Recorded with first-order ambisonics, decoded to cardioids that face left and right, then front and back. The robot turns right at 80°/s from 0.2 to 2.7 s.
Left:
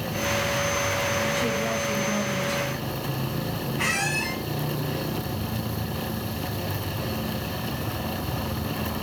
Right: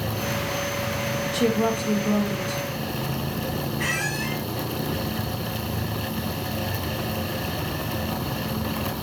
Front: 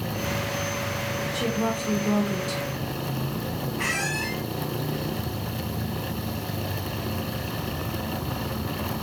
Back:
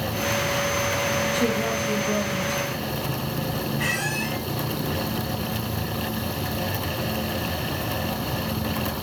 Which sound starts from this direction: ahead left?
A squeak, at 3.8 s.